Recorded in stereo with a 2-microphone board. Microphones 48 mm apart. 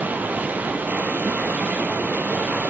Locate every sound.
0.0 s running water: 35° right (ahead or behind), 1.8 m